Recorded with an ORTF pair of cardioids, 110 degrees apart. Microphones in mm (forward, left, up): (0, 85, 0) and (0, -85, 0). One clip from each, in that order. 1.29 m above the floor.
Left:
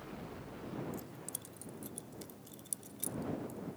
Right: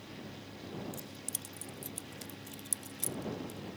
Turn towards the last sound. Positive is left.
turn(degrees=-20)